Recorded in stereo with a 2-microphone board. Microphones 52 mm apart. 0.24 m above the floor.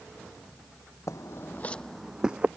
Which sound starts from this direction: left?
Footsteps, at 1.1 s.